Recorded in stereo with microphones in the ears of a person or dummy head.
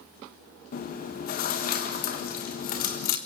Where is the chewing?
50° left (ahead or behind), 1.4 m.